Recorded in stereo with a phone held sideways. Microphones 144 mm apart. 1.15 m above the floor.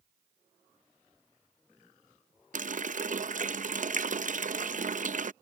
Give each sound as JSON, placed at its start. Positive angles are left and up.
{"t": 2.5, "sound": "a running tap", "side_deg": -60}